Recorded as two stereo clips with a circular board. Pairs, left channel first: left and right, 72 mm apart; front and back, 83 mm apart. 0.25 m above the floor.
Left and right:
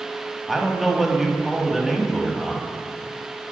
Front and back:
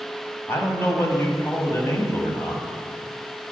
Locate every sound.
0.5 s a man speaking: straight ahead, 1.1 m